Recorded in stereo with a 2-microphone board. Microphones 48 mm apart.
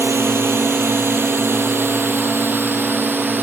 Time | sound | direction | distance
0.0 | a drone | 65° right (ahead or behind) | ?